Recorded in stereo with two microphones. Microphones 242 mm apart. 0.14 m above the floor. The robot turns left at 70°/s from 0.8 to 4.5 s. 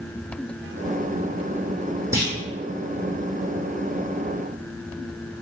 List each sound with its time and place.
2.1 s a clunk: 10° right (ahead or behind), 1.9 m; by 2.4 s 30° right (ahead or behind), 1.9 m